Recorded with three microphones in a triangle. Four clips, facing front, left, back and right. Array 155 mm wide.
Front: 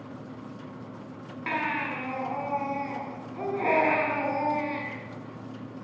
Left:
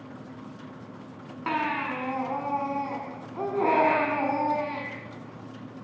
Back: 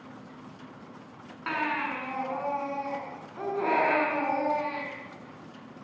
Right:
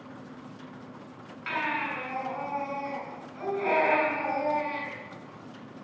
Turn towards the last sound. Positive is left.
turn(degrees=80)